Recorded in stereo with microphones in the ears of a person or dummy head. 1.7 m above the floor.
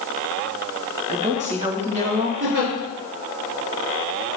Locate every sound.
1.1 s a woman speaking: 30° right (ahead or behind), 1.3 m
2.4 s a giggle: 75° right (ahead or behind), 3.5 m